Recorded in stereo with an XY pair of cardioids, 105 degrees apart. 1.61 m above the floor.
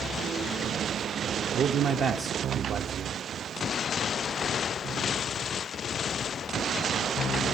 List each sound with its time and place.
1.5 s a man speaking: 60° right, 0.6 m